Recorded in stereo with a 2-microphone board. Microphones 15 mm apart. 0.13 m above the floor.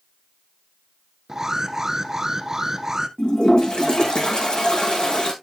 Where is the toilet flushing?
75° left (ahead or behind), 5 m.